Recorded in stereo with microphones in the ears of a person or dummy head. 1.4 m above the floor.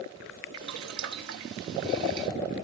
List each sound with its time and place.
0.5 s boiling: 65° right (ahead or behind), 1.1 m